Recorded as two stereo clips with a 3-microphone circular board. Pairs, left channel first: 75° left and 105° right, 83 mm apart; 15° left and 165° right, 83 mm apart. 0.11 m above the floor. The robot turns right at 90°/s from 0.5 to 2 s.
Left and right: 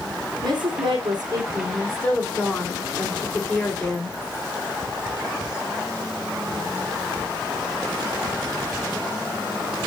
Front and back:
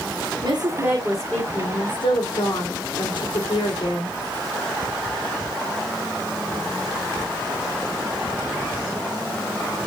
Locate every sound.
0.4 s a woman speaking: 140° right, 5 m; by 4.2 s 5° right, 5 m